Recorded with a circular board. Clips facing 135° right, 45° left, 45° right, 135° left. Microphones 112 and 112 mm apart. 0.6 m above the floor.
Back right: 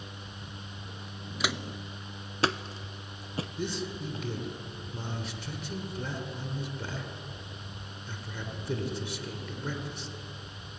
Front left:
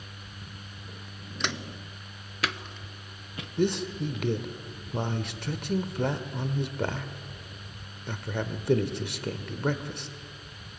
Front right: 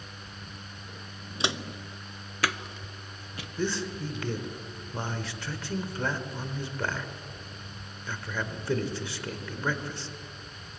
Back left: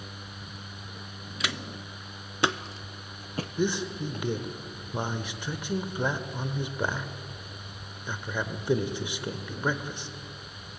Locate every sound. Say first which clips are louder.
1.4 s footsteps: back right 1 dB, front right 3 dB; 55° right, 0.6 m; by 4.3 s 170° left, 1.6 m
3.6 s a man speaking: front left 10 dB, back left 2 dB; 60° left, 1.7 m